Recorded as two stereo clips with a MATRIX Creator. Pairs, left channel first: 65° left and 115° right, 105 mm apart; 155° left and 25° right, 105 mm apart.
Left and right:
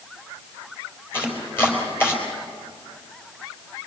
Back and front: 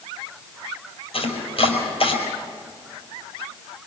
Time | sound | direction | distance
1.1 | chopping | 135° left | 4.5 m